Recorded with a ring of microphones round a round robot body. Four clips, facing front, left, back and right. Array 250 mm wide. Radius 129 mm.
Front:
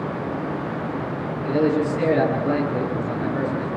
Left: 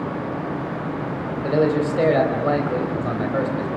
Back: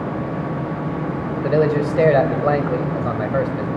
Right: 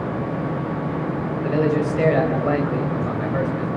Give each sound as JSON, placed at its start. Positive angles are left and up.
{"t": 1.4, "sound": "a man speaking", "azimuth_deg": 170, "distance_m": 4.0}